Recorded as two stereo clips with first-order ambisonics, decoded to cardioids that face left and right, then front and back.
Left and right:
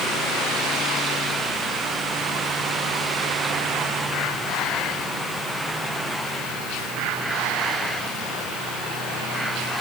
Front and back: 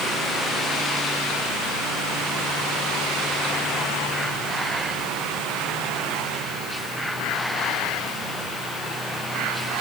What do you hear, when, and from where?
Only background noise.